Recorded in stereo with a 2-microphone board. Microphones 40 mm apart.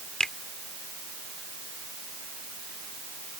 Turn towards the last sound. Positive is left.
turn(degrees=15)  # may be behind; listen again after turning